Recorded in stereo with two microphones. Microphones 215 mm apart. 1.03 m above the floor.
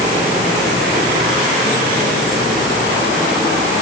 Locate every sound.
Only background noise.